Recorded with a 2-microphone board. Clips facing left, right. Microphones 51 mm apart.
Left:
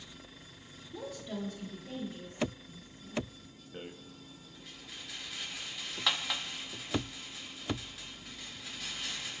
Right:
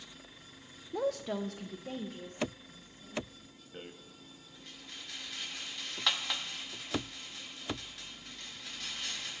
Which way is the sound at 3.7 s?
Centre (ahead or behind).